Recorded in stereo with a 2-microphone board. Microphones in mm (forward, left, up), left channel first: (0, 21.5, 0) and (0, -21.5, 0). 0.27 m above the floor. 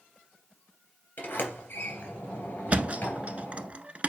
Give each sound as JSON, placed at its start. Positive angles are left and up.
{"t": 1.2, "sound": "a sliding door", "side_deg": 50, "distance_m": 3.0}
{"t": 2.7, "sound": "a thud", "side_deg": -35, "distance_m": 0.6}